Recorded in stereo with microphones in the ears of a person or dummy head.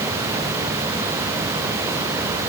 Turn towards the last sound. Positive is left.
No sound to turn to.